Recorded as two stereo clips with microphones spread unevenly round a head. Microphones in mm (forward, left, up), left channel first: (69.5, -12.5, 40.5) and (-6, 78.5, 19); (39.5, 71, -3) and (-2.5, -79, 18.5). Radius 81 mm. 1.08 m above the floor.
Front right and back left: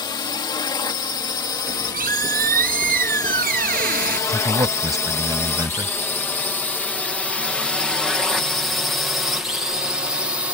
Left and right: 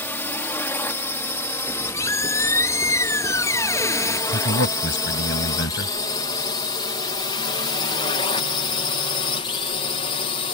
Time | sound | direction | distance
0.0 | a drone | straight ahead | ?
1.7 | a squeak | 150° left | ?
4.3 | a man speaking | 70° left | ?